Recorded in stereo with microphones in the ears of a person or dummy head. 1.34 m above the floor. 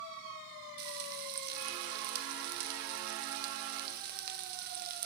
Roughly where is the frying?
Right.